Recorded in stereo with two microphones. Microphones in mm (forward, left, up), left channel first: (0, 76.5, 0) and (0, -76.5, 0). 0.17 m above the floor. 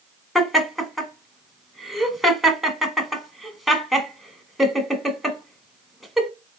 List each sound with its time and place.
0.3 s laughter: centre (ahead or behind), 1.1 m